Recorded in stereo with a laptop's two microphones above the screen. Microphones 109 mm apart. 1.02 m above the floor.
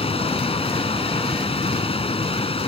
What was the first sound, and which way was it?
A machine running, 65° left (ahead or behind).